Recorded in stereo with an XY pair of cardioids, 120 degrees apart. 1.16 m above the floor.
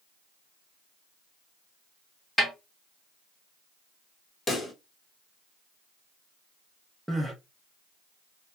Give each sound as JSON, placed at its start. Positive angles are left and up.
{"t": 2.4, "sound": "a snare drum", "azimuth_deg": 5, "distance_m": 2.0}
{"t": 4.5, "sound": "a pop", "azimuth_deg": 20, "distance_m": 1.2}
{"t": 7.1, "sound": "crying", "azimuth_deg": -5, "distance_m": 1.0}